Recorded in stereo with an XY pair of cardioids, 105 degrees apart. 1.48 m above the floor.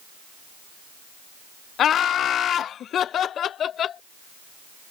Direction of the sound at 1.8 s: 65° left.